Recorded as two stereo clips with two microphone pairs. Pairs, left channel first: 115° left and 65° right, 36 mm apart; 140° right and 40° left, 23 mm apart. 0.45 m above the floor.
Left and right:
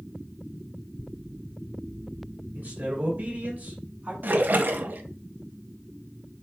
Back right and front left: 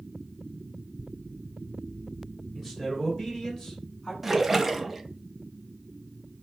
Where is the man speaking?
50° right, 2 m; by 4.1 s 85° right, 1.8 m.